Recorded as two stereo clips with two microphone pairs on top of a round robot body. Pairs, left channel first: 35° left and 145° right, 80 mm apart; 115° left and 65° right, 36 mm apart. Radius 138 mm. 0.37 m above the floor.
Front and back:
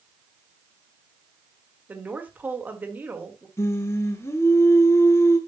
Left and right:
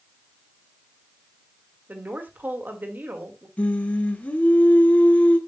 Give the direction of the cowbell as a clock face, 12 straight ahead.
I don't hear a cowbell.